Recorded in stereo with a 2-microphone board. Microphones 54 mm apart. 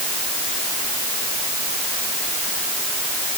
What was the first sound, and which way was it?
Only background noise.